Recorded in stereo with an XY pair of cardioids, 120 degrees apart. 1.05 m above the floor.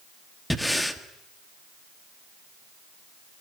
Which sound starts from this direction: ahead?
Breathing, at 0.5 s.